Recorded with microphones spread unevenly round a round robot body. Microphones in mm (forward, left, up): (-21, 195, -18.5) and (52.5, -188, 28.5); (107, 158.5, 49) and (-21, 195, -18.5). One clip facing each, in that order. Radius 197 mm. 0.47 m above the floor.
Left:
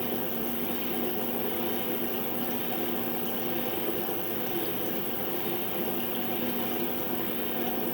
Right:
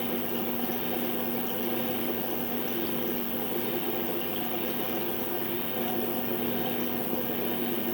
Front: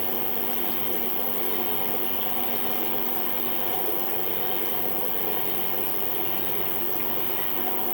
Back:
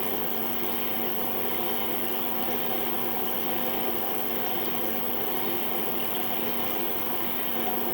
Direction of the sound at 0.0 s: 20° left.